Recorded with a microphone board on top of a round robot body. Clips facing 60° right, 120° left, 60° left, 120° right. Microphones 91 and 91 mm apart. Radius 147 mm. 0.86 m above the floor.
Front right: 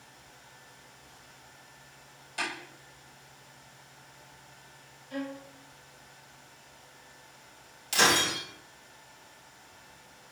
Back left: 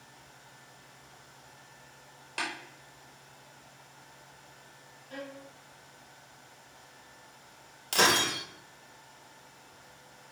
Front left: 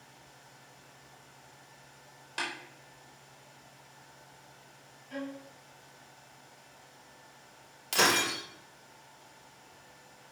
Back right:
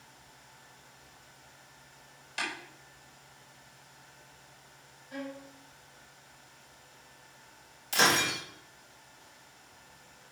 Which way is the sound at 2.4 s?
105° left.